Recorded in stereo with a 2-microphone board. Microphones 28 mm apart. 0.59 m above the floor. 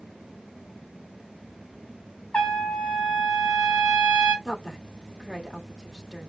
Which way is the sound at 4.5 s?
Centre (ahead or behind).